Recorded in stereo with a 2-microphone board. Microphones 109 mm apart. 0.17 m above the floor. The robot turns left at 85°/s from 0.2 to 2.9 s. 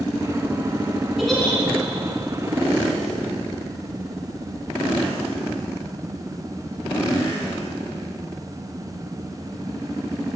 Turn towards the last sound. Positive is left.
turn(degrees=40)